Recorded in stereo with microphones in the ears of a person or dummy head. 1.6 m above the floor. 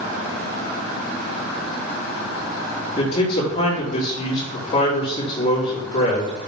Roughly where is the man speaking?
Left.